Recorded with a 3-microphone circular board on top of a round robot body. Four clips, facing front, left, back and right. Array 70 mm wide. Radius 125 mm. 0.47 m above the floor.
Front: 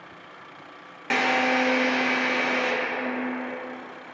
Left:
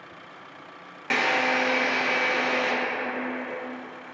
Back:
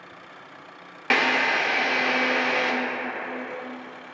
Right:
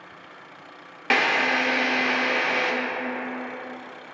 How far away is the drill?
About 0.5 m.